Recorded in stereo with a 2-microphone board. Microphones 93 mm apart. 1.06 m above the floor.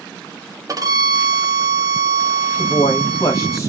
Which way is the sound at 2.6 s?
35° left (ahead or behind).